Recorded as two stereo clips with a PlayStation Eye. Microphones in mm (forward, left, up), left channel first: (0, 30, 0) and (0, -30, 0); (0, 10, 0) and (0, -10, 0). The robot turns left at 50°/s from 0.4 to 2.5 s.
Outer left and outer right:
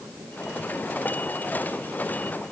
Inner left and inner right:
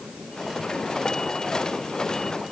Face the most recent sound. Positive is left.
No sound to turn to.